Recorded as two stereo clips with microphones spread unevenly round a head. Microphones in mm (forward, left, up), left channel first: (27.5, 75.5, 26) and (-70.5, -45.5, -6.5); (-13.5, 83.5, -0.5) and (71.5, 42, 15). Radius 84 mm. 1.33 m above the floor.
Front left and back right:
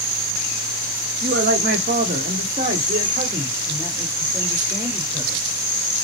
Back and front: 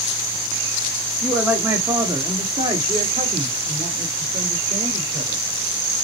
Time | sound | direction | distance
1.2 | a man speaking | 120° right | 0.9 m